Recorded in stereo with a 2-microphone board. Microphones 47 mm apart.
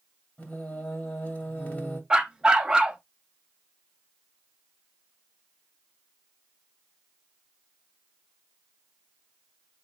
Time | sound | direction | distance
0.4 | singing | 30° left (ahead or behind) | 1.9 m
2.1 | a dog barking | 20° right (ahead or behind) | 0.6 m